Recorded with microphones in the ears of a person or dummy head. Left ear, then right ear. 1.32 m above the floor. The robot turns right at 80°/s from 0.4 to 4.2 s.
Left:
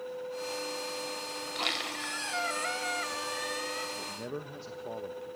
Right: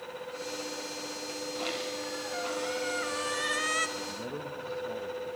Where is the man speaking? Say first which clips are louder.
Right 1 dB; 60° left (ahead or behind), 1.2 m; by 5.3 s 75° left (ahead or behind), 1.2 m.